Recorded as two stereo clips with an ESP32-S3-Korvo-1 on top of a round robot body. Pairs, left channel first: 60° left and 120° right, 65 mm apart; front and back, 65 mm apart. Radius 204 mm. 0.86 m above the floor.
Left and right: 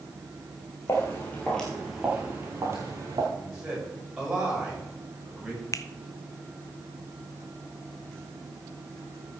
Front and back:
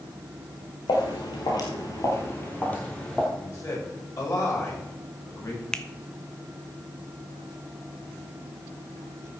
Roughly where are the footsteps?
Ahead.